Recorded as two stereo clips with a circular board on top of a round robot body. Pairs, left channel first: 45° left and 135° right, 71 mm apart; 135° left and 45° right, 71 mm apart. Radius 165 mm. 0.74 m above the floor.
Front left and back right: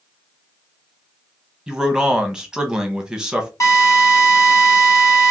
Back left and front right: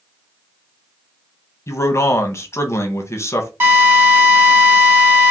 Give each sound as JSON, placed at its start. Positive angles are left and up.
{"t": 1.7, "sound": "a man speaking", "azimuth_deg": 150, "distance_m": 1.2}
{"t": 3.6, "sound": "a drill", "azimuth_deg": 5, "distance_m": 2.0}